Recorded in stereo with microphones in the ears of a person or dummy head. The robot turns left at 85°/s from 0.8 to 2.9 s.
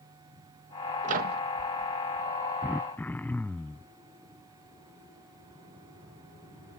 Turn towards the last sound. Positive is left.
turn(degrees=10)  # may be behind; listen again after turning